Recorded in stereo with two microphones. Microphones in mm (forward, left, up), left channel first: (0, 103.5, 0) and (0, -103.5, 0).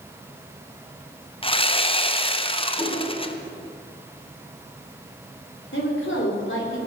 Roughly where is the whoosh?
Centre.